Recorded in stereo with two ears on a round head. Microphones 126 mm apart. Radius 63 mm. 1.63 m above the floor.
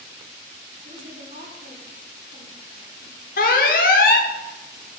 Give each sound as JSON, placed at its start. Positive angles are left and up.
{"t": 0.8, "sound": "a woman speaking", "side_deg": -60, "distance_m": 4.5}
{"t": 3.4, "sound": "an alarm", "side_deg": 65, "distance_m": 1.1}